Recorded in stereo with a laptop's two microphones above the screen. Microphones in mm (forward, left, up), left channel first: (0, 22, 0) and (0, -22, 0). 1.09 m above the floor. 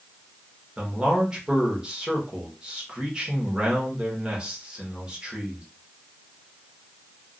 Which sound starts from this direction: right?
A man speaking, at 0.8 s.